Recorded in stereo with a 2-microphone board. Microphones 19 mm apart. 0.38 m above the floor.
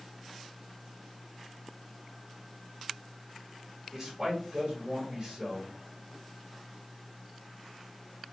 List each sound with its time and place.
3.9 s a man speaking: 25° right (ahead or behind), 1.5 m